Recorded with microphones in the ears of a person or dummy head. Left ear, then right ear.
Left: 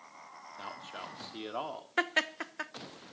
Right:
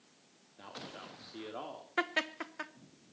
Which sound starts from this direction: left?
A man speaking, at 0.6 s.